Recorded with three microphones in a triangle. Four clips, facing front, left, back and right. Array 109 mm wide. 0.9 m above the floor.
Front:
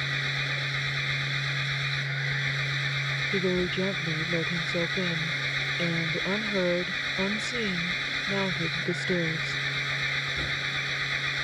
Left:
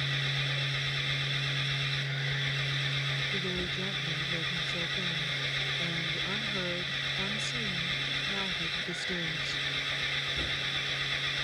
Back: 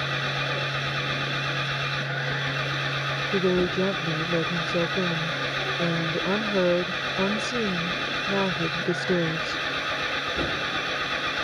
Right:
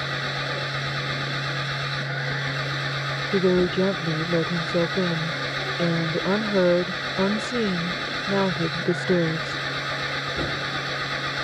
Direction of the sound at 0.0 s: 140° right.